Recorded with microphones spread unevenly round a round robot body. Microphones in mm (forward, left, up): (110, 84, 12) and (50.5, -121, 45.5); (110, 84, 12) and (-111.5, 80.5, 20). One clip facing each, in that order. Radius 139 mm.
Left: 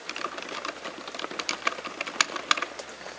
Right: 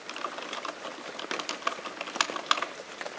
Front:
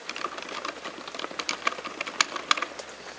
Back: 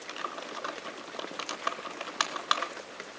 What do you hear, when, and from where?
0.1 s typing on a keyboard: 40° left, 1.0 m